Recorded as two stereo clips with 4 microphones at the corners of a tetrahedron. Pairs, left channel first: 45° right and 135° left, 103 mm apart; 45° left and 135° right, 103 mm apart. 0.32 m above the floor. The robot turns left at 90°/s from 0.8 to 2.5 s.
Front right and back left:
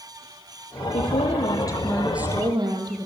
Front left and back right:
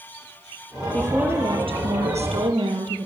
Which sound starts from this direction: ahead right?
A woman speaking, at 0.9 s.